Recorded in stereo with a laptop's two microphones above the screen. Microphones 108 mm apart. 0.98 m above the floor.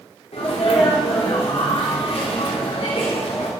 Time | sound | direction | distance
0.3 | a sneeze | 75° left (ahead or behind) | 3.5 m